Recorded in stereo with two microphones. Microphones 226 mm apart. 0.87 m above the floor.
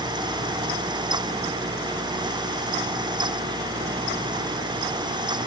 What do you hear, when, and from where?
Only background noise.